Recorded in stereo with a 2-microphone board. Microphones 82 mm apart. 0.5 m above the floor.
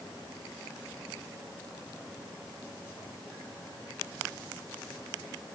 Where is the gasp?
I don't hear a gasp.